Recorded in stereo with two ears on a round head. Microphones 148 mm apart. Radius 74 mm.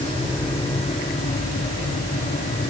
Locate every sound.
Only background noise.